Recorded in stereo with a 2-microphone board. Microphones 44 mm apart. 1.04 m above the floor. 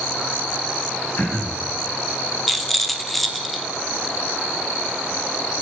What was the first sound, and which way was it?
Throat clearing, 55° left (ahead or behind).